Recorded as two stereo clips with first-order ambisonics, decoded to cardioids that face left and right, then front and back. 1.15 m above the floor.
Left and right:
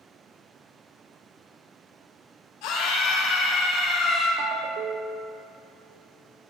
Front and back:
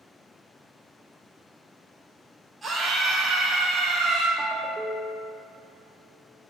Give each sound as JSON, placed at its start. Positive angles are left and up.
{"t": 2.6, "sound": "a scream", "azimuth_deg": 100, "distance_m": 2.0}
{"t": 4.4, "sound": "a ringtone", "azimuth_deg": -110, "distance_m": 0.5}